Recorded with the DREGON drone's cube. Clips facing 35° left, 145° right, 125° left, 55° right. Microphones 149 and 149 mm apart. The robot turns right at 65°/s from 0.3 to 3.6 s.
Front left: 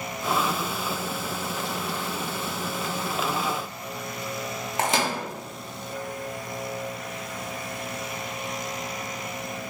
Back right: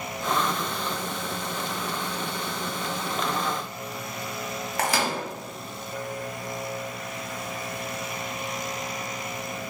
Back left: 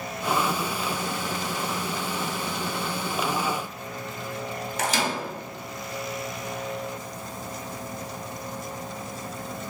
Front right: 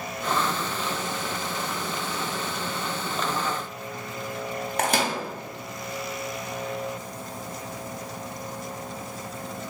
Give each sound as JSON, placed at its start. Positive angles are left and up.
{"t": 4.8, "sound": "a microwave", "azimuth_deg": -30, "distance_m": 0.6}